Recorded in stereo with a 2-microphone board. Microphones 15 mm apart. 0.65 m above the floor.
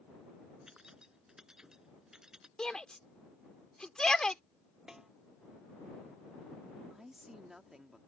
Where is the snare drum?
35° right (ahead or behind).